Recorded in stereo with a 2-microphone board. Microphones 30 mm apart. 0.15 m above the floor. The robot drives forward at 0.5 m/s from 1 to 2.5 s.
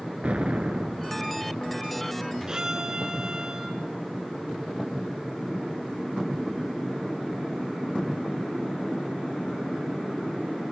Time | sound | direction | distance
0.2 | an explosion | 50° right (ahead or behind) | 1.3 m
2.5 | a violin | 30° right (ahead or behind) | 1.4 m